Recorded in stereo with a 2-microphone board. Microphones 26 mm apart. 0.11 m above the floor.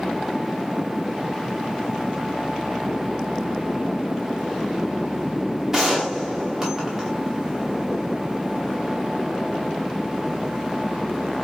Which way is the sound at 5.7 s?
20° right (ahead or behind).